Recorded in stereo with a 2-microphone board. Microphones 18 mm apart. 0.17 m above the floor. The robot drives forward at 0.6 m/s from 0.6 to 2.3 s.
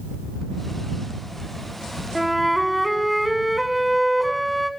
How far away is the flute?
About 1.0 m.